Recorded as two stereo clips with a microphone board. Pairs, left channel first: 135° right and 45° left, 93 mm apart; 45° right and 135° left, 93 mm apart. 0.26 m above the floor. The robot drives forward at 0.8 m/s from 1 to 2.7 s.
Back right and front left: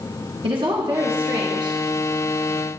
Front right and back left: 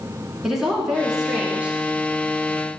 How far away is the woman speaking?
About 3 m.